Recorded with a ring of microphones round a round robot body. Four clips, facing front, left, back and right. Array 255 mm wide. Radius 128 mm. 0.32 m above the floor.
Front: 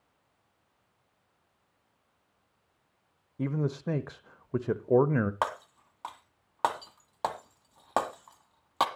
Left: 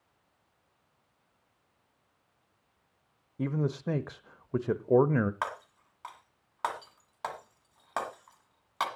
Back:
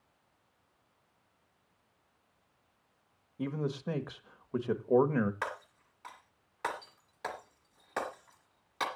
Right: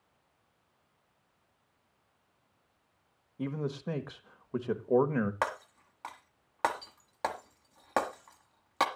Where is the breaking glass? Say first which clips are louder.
Right 2 dB, front 7 dB; 30° right, 1.5 m.